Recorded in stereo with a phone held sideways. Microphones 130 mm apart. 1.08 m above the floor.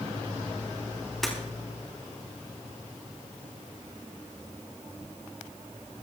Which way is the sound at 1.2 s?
Centre (ahead or behind).